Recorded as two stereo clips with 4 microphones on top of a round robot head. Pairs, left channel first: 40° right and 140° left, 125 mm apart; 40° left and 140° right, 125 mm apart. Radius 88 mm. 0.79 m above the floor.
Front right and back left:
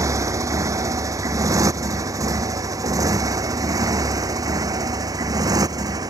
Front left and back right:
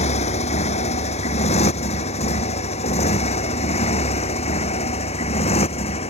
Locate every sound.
0.0 s a motorcycle: 75° left; by 6.1 s 80° left